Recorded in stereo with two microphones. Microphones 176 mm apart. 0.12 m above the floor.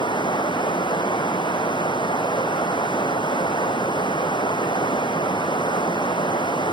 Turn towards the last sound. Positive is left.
turn(degrees=25)  # may be behind; listen again after turning